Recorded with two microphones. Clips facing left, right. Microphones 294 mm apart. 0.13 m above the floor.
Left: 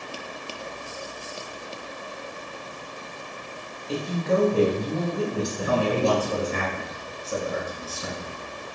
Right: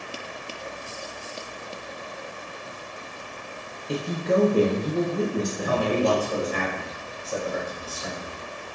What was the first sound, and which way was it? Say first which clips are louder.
A woman speaking: right 1 dB; 20° right (ahead or behind).